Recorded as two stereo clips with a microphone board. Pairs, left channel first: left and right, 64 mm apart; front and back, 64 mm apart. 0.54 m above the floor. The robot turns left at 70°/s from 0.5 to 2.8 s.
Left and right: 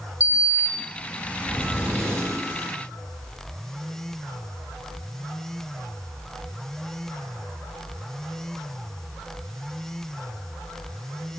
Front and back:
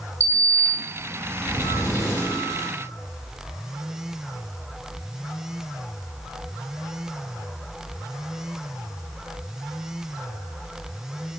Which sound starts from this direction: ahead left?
A sliding door, at 0.2 s.